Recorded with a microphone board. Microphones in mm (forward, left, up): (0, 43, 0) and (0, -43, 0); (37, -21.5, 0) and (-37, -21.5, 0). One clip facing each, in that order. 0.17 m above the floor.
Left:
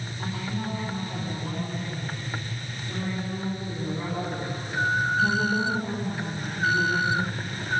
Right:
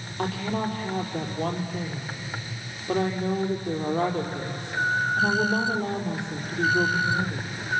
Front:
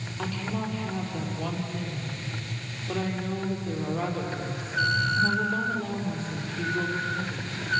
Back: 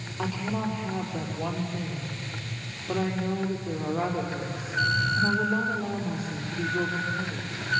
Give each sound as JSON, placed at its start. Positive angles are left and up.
{"t": 0.2, "sound": "a woman speaking", "azimuth_deg": -100, "distance_m": 5.0}